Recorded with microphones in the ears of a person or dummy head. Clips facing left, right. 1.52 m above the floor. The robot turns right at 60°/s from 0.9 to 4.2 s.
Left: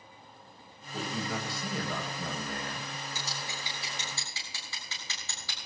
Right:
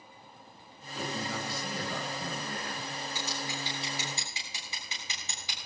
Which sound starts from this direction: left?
Scissors, at 3.1 s.